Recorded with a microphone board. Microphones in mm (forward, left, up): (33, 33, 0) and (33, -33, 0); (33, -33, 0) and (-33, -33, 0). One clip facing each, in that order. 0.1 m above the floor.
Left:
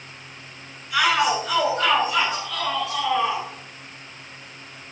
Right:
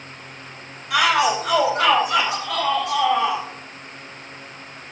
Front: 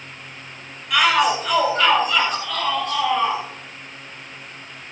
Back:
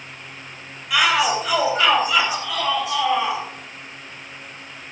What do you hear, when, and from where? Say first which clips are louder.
0.9 s a shout: right 2 dB, front 1 dB; 95° right, 6 m; by 3.4 s 100° right, 7.5 m